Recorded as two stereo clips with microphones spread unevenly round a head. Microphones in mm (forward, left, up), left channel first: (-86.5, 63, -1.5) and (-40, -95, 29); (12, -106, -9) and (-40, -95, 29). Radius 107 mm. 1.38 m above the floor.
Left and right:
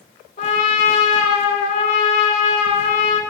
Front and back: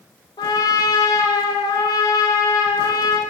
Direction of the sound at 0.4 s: 45° left.